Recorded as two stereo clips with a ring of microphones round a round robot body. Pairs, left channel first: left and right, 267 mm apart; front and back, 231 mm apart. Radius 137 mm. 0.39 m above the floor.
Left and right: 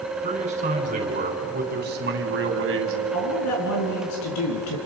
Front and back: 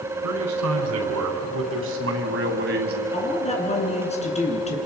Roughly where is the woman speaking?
Ahead left.